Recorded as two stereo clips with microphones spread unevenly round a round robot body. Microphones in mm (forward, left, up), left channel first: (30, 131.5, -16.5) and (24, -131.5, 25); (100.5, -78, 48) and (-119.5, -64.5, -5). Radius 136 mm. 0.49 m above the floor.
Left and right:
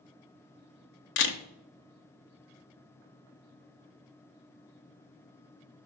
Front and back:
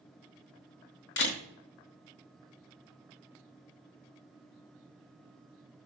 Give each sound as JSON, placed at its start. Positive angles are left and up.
{"t": 1.2, "sound": "a camera shutter", "azimuth_deg": 50, "distance_m": 0.9}